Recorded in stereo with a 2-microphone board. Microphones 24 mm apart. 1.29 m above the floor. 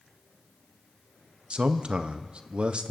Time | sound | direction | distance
1.5 | a man speaking | 50° right (ahead or behind) | 0.7 m